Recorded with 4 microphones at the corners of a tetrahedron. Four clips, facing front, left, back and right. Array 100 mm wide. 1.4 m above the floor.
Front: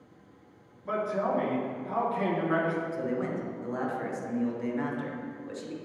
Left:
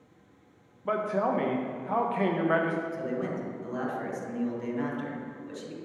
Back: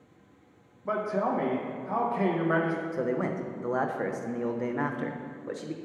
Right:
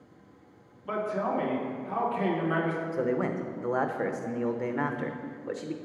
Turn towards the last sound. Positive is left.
turn(degrees=-130)